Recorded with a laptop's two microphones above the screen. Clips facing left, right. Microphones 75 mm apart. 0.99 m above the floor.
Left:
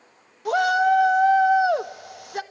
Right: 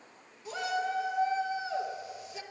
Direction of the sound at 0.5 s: 65° left (ahead or behind).